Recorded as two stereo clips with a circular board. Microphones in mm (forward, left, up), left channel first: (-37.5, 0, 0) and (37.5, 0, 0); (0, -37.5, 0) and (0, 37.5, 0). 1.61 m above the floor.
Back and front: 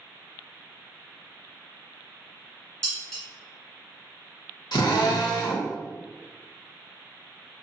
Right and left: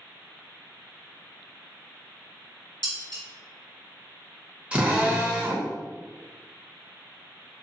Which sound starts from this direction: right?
Dishes clattering, at 2.8 s.